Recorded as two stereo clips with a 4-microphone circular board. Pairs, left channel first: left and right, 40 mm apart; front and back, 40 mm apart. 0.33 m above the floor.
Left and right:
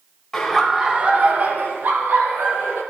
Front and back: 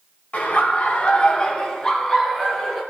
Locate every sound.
0.3 s laughter: 15° left, 1.3 m; by 2.8 s 80° right, 4 m